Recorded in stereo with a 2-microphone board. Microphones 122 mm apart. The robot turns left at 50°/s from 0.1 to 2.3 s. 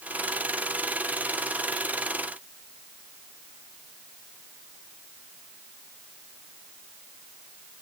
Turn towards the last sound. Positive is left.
No sound to turn to.